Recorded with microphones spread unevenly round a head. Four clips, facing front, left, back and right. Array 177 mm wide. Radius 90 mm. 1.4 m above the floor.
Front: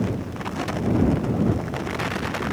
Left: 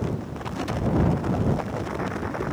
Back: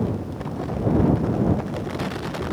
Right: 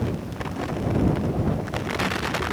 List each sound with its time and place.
Only background noise.